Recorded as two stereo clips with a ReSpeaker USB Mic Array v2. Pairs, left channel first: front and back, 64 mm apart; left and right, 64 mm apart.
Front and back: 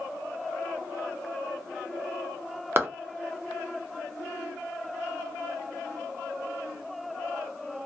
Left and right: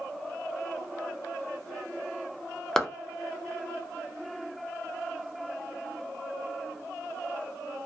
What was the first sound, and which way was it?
A clap, 170° left.